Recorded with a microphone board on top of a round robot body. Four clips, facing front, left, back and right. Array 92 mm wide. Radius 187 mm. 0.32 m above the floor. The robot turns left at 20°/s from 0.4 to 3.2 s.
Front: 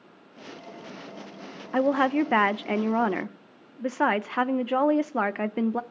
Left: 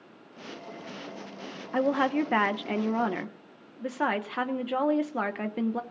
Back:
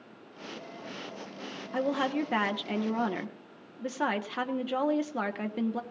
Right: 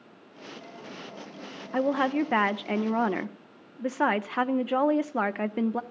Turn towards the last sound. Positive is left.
turn(degrees=-25)